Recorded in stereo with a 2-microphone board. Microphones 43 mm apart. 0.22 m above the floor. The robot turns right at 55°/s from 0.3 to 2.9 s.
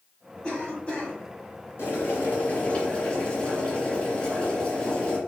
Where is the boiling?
95° left, 2 m; by 5.2 s 155° left, 2 m.